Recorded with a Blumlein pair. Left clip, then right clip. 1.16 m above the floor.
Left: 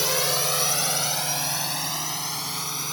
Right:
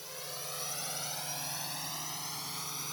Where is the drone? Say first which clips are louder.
Left 19 dB; 40° left; by 2.9 s 25° left.